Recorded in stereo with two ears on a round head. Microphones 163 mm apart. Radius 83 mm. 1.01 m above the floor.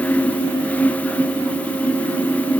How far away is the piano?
No piano in this recording.